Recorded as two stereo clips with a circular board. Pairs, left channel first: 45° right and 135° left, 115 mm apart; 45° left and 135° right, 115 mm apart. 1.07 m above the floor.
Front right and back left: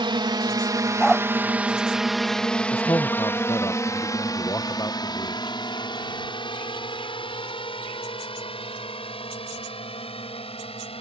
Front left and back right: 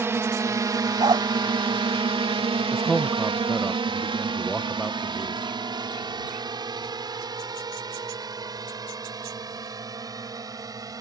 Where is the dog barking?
135° right.